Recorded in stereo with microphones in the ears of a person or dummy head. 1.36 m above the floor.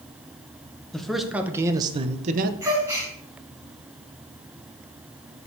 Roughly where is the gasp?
Centre.